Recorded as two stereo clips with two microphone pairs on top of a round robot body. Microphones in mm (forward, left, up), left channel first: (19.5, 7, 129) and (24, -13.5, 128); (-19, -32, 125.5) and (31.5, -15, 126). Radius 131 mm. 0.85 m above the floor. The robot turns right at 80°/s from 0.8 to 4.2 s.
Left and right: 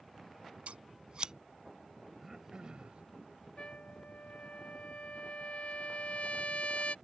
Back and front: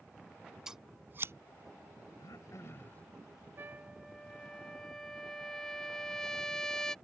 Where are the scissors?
60° right; by 1.3 s 20° right.